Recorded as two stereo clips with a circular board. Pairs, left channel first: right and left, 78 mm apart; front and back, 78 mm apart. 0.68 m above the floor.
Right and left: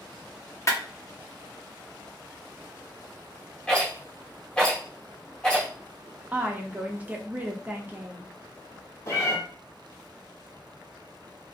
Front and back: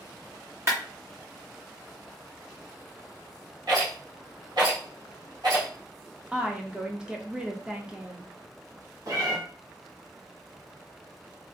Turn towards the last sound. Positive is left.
turn(degrees=-140)